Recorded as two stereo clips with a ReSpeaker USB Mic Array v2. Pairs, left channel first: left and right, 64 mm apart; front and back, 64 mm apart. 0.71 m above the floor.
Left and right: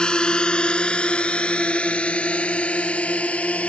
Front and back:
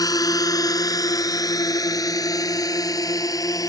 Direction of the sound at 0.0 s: 15° left.